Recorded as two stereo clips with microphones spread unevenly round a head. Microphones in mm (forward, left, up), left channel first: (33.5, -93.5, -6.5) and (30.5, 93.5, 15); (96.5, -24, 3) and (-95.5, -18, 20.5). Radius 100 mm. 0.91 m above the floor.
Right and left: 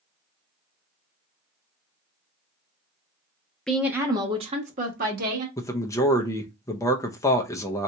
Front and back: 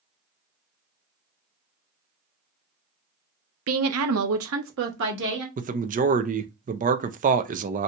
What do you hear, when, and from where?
3.7 s a woman speaking: 175° right, 0.7 m; by 5.5 s 140° left, 1.5 m
5.6 s a man speaking: 150° right, 0.5 m